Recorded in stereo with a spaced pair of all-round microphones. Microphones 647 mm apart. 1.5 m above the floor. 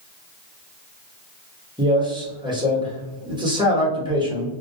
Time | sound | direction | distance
1.8 | a man speaking | 5° right (ahead or behind) | 0.9 m